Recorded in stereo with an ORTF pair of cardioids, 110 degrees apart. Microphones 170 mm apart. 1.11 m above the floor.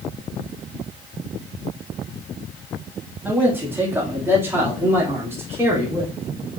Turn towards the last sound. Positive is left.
turn(degrees=-15)